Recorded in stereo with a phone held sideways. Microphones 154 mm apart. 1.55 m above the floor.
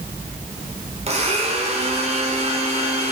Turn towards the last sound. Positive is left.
turn(degrees=-40)  # may be behind; listen again after turning